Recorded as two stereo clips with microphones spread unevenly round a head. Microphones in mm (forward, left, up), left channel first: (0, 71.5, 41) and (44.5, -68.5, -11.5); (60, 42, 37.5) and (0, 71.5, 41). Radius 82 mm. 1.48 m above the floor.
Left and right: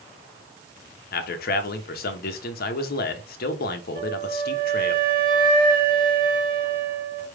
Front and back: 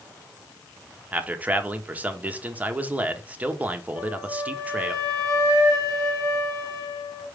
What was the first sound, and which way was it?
A man speaking, 85° left.